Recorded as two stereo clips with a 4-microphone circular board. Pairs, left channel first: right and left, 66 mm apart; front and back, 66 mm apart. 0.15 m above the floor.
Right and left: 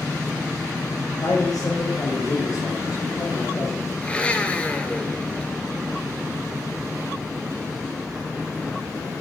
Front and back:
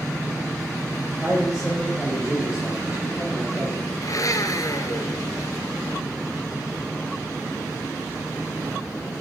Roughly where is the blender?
Ahead.